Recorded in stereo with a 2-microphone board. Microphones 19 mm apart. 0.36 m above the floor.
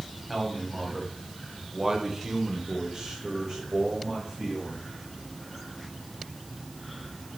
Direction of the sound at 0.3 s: 5° right (ahead or behind).